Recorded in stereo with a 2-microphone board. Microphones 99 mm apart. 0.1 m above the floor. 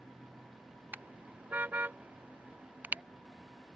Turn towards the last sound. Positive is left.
turn(degrees=-15)  # may be behind; listen again after turning